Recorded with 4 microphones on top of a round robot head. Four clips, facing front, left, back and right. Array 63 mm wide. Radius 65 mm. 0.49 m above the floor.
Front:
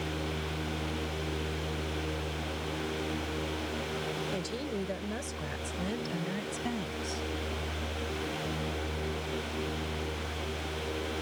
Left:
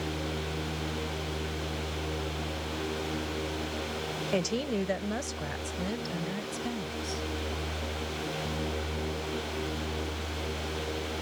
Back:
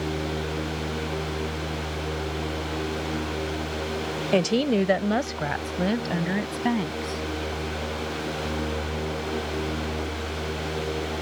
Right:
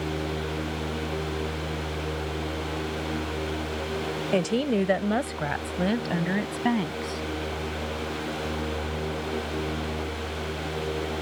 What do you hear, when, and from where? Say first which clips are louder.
4.3 s a woman speaking: right 6 dB, back 14 dB; 160° right; by 7.2 s 130° right